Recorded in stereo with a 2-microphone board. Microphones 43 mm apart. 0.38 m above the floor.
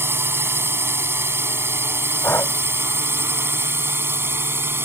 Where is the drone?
65° right (ahead or behind); by 4.8 s 60° right (ahead or behind).